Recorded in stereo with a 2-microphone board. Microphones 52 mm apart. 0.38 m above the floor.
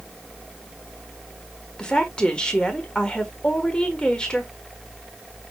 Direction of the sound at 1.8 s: 20° left (ahead or behind).